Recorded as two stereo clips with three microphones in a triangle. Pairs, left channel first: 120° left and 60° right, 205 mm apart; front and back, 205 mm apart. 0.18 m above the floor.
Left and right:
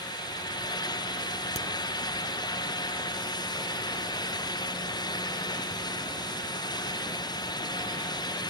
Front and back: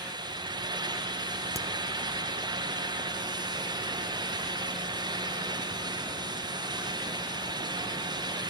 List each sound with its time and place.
1.6 s a crack: 120° left, 1.8 m